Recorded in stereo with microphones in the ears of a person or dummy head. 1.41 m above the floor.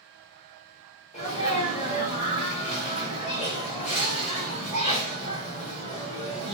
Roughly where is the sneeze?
Left.